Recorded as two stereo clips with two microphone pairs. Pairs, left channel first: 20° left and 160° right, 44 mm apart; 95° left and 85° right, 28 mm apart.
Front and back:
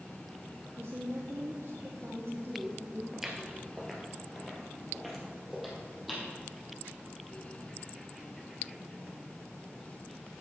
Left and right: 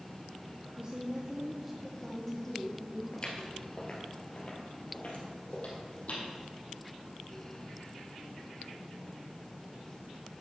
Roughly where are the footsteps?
Behind left.